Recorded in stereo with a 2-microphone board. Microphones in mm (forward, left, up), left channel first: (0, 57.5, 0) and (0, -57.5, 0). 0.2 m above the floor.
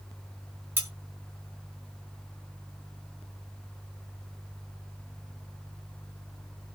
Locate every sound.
0.8 s cutlery clinking: 20° right (ahead or behind), 1.4 m